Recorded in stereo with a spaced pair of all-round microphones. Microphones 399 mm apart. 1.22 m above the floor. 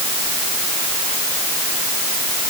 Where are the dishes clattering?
No dishes clattering in this recording.